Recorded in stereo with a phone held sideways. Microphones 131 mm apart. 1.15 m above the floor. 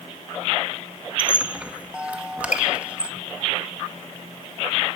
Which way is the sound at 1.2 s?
10° right (ahead or behind).